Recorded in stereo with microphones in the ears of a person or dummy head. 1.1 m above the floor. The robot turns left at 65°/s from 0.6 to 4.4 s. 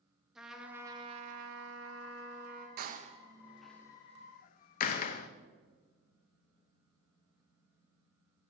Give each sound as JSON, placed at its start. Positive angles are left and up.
{"t": 0.3, "sound": "a trumpet", "azimuth_deg": -5, "distance_m": 0.9}
{"t": 2.8, "sound": "a door slam", "side_deg": -50, "distance_m": 0.5}